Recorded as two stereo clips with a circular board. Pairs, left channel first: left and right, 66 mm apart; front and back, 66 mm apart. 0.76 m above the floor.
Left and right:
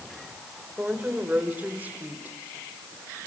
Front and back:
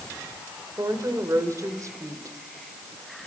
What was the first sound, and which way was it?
A woman speaking, 155° right.